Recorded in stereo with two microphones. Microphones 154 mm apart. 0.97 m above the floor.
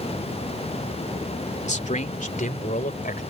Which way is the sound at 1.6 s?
45° left (ahead or behind).